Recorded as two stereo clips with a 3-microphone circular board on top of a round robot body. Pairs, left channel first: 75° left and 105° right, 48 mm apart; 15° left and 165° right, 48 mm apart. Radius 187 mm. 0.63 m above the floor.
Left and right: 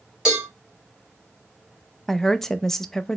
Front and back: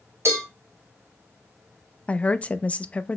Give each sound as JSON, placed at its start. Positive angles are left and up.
{"t": 0.2, "sound": "a cowbell", "azimuth_deg": 175, "distance_m": 2.0}
{"t": 2.1, "sound": "a woman speaking", "azimuth_deg": 0, "distance_m": 0.5}